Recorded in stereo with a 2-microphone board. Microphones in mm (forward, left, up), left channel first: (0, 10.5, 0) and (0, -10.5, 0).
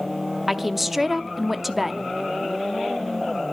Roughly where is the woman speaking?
Centre.